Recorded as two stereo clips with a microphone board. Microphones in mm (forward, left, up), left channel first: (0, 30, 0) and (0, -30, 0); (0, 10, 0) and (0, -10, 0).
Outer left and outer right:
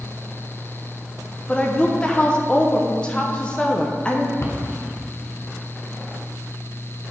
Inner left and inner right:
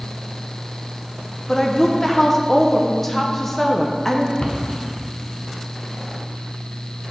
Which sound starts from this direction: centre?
A woman speaking, at 1.5 s.